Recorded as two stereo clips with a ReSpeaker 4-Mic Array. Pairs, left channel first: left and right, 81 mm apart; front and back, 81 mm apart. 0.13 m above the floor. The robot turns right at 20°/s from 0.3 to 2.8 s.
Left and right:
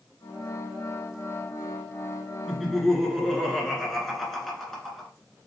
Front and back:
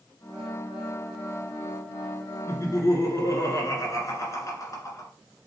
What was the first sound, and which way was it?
Laughter, 5° right.